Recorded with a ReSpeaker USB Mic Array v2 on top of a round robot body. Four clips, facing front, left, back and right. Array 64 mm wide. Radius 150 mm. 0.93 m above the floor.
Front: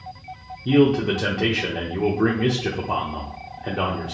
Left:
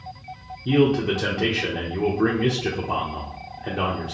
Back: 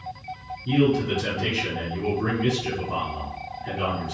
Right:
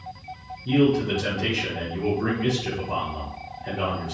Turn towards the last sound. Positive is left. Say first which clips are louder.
# left 1 dB, front 4 dB
turn(degrees=30)